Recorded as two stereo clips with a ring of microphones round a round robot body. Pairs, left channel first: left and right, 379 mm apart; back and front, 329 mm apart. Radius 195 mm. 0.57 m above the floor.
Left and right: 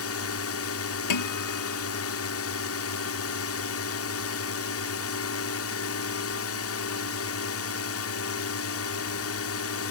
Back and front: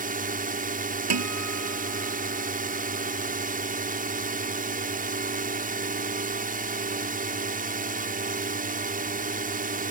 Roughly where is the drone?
Ahead left.